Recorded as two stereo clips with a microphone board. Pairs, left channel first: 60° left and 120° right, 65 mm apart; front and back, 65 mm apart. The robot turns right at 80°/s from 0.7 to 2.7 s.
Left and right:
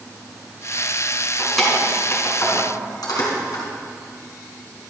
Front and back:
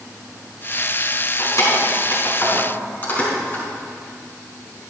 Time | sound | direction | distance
1.4 | keys jangling | 45° right | 4.5 m